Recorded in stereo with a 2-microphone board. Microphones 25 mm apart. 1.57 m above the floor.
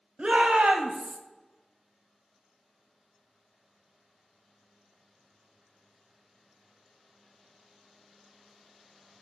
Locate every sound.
0.2 s a shout: 55° right (ahead or behind), 1.0 m; by 1.2 s 45° right (ahead or behind), 0.8 m